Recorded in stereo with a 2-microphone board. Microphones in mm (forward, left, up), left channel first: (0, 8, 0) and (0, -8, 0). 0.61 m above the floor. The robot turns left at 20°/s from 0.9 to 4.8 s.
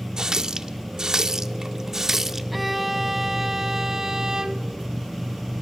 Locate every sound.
0.2 s a running tap: 125° right, 0.9 m; by 2.4 s 155° right, 0.9 m
2.5 s a violin: 5° right, 1.1 m; by 4.8 s 50° right, 1.1 m